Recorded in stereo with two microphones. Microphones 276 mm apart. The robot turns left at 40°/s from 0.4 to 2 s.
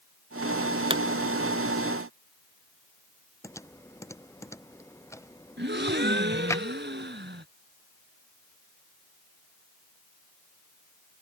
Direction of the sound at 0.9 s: 20° right (ahead or behind).